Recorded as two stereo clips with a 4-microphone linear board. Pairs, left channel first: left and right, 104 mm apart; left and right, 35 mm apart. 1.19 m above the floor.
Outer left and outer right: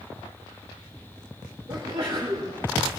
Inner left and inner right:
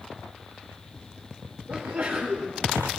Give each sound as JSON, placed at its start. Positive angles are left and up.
{"t": 1.7, "sound": "a sneeze", "side_deg": -65, "distance_m": 2.5}